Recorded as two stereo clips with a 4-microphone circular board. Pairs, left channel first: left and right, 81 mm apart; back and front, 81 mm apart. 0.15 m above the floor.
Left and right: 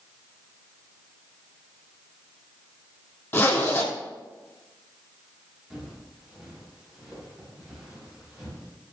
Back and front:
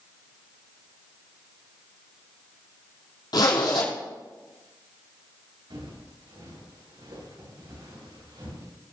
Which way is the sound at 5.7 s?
5° right.